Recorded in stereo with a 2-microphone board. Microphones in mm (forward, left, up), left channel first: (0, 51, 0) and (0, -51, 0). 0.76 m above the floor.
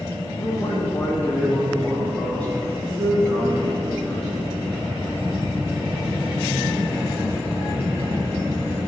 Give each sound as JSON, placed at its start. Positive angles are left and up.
{"t": 0.4, "sound": "a man speaking", "side_deg": 40, "distance_m": 3.0}